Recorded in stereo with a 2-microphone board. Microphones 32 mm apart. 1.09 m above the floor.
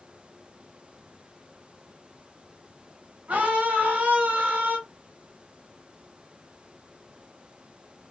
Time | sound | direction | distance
3.3 | a scream | 55° right (ahead or behind) | 1.6 m